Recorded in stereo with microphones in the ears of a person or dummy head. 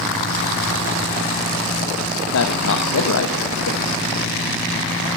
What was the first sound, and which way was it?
A man speaking, 80° left.